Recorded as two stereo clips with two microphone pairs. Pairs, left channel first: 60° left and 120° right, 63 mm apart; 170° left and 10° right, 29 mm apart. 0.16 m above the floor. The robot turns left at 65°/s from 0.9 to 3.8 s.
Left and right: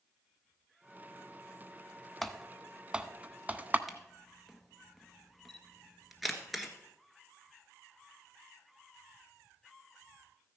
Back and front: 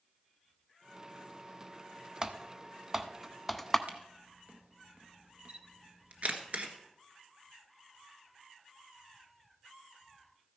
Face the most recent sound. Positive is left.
turn(degrees=-30)